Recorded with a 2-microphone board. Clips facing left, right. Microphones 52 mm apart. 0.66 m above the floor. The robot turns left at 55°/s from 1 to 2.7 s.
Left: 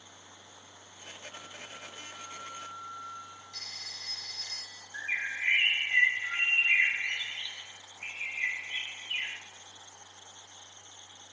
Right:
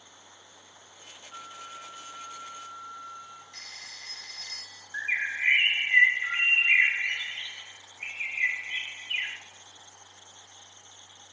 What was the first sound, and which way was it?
A flute, 85° right.